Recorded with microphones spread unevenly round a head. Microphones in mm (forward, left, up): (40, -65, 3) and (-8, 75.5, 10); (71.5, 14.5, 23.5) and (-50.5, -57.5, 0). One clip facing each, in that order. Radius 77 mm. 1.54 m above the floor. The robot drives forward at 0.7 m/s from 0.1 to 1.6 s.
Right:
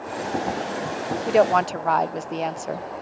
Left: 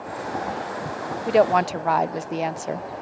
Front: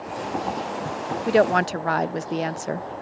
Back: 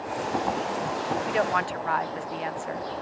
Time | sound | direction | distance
1.3 | a woman speaking | 20° left | ?